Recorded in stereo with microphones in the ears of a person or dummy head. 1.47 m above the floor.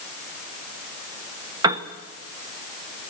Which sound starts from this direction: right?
A piano, at 1.6 s.